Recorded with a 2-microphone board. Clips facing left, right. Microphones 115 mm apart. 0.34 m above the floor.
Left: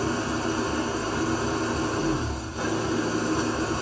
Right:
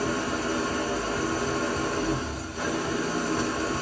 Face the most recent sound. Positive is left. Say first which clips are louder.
# left 1 dB
turn(degrees=25)  # may be behind; listen again after turning